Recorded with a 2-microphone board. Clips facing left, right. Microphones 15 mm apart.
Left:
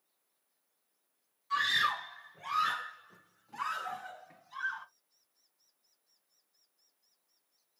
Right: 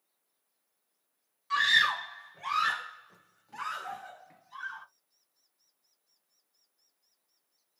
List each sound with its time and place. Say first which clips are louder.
1.5 s a scream: right 5 dB; 40° right (ahead or behind), 1.8 m; by 4.9 s 5° left (ahead or behind), 1.7 m